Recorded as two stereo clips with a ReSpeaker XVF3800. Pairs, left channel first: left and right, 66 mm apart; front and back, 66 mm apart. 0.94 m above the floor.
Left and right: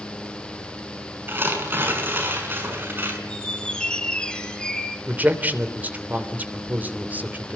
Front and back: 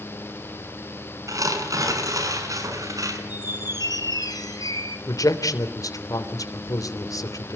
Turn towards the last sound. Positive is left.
turn(degrees=-25)